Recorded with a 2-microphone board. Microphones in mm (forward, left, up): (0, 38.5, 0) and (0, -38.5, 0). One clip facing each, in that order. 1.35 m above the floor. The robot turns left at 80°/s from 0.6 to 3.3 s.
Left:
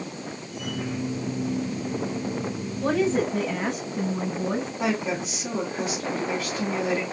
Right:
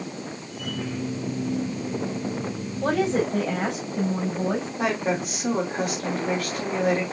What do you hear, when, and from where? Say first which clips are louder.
2.8 s a woman speaking: even; 65° right, 3.5 m; by 4.7 s 105° right, 3.5 m
4.8 s a woman speaking: right 3 dB; 60° right (ahead or behind), 2.5 m